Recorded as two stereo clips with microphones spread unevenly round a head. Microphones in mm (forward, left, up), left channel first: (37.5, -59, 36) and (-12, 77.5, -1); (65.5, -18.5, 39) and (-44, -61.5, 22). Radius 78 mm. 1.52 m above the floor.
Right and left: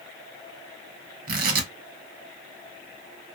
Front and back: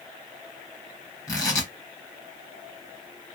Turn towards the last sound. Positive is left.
turn(degrees=80)